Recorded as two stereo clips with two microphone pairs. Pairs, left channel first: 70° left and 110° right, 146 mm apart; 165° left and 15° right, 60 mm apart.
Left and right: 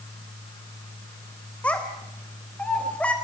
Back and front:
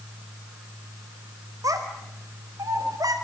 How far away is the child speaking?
About 3.5 m.